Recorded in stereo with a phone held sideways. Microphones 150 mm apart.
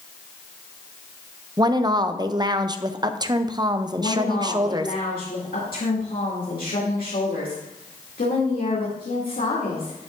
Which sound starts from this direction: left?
A woman speaking, at 4.0 s.